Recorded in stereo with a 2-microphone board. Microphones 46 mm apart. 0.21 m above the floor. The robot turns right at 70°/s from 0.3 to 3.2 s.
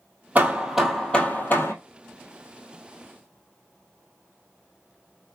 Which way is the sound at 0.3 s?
35° right.